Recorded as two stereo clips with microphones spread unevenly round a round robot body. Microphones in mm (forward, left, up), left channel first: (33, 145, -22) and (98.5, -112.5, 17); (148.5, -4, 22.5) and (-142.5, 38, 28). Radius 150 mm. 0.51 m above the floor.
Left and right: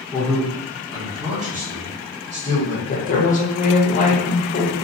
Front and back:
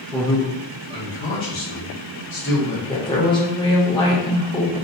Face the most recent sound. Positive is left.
turn(degrees=60)